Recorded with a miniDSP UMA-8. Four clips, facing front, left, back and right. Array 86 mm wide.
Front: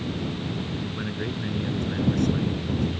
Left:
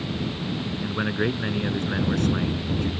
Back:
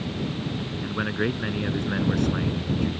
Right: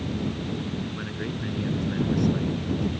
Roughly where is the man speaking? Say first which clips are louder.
Left 7 dB, back 4 dB; behind left.